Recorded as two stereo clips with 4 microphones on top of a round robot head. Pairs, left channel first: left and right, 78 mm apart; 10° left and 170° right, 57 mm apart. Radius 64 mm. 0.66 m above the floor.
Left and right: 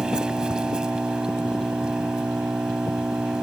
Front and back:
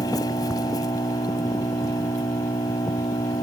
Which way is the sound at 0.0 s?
10° right.